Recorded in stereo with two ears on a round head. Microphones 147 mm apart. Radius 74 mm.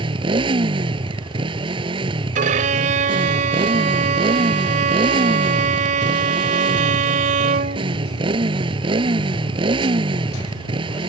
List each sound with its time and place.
0.0 s a motorcycle: 35° right (ahead or behind)
2.4 s a violin: 55° right (ahead or behind)